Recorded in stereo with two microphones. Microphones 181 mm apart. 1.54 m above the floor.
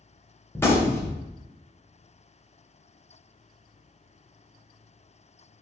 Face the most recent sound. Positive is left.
turn(degrees=10)  # may be behind; listen again after turning